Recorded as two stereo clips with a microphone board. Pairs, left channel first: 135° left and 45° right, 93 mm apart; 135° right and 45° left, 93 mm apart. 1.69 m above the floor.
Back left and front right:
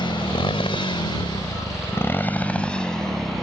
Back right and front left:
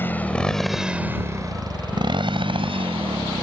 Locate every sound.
0.0 s a motorcycle: 160° left; by 3.4 s 45° left